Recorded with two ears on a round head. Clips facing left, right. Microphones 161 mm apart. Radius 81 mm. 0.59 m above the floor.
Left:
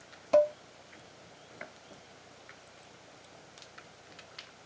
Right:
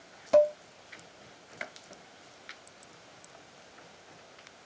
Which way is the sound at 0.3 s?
5° right (ahead or behind).